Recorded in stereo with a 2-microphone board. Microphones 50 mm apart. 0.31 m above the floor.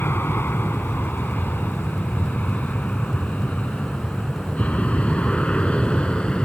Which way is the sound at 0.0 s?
45° left (ahead or behind).